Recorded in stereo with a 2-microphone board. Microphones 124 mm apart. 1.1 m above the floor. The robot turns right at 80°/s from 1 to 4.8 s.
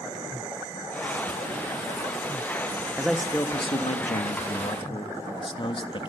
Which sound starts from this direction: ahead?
A man speaking, at 3.0 s.